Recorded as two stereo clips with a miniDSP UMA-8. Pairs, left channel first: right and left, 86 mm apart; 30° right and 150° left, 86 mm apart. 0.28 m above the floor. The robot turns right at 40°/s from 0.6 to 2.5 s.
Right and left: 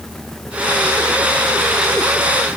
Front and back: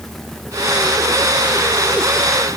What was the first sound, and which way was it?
Only background noise.